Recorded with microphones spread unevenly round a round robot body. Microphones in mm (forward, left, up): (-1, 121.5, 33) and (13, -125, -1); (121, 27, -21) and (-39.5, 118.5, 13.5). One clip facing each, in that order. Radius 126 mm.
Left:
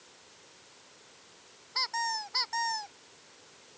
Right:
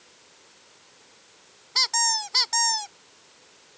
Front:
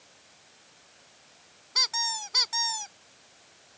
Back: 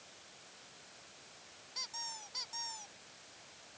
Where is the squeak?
55° right.